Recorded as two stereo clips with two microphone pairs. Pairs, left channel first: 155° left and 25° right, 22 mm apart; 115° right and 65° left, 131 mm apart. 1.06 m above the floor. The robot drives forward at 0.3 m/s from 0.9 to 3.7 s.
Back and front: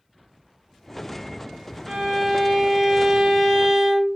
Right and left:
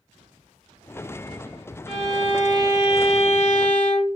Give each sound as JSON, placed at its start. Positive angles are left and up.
{"t": 1.9, "sound": "a violin", "azimuth_deg": -65, "distance_m": 1.3}